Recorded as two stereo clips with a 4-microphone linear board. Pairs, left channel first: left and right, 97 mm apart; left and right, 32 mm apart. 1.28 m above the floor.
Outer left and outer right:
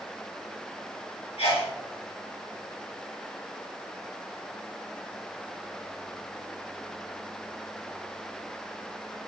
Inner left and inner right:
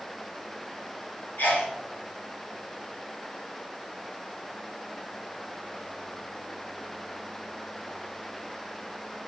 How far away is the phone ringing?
No phone ringing in this recording.